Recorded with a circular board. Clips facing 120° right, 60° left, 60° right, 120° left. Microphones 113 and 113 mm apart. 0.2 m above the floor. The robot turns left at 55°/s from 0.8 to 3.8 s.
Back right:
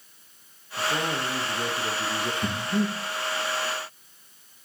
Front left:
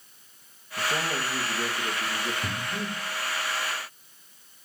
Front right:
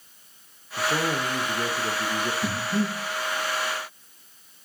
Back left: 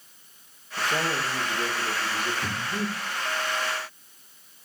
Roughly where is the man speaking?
Ahead.